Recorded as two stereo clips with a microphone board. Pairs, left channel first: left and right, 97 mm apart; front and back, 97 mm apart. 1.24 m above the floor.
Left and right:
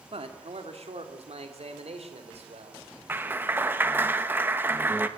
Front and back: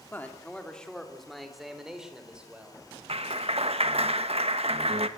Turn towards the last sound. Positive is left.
turn(degrees=-160)